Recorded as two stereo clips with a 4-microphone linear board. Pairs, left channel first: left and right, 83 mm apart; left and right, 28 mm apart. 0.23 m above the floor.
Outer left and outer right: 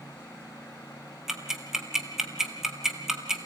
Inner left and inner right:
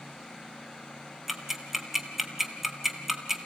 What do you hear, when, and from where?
1.3 s ticking: 5° right (ahead or behind), 1.8 m